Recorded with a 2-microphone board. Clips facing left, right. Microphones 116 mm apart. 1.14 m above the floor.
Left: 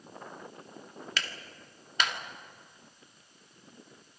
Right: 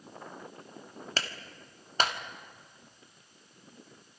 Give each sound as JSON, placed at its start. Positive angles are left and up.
{"t": 1.2, "sound": "a clap", "side_deg": -35, "distance_m": 1.7}